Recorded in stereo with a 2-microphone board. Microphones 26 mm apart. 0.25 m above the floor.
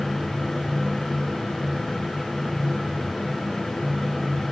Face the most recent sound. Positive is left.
No sound to turn to.